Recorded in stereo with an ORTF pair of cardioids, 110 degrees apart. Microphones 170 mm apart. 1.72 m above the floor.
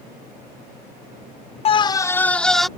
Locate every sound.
1.6 s a scream: 35° left; by 2.7 s straight ahead